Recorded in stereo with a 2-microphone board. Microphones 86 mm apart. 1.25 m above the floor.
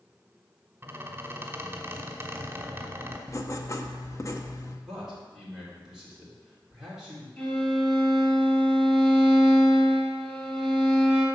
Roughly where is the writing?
Left.